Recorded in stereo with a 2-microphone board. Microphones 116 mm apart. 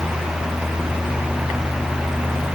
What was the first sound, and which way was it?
Only background noise.